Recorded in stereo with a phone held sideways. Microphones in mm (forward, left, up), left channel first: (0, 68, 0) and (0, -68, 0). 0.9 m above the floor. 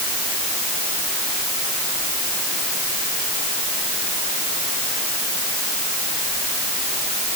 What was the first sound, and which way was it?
Only background noise.